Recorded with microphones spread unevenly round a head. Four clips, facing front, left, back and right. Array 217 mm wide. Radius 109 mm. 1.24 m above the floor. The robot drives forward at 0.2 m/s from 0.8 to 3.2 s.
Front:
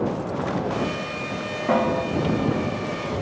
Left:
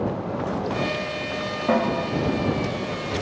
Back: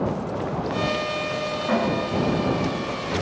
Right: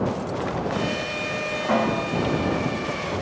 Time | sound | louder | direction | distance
1.7 | a snare drum | left 1 dB, front 3 dB | 85° left | 6 m